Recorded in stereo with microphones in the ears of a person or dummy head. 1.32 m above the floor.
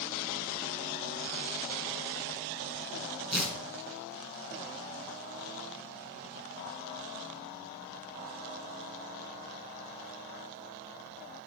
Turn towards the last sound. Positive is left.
turn(degrees=-5)  # may be behind; listen again after turning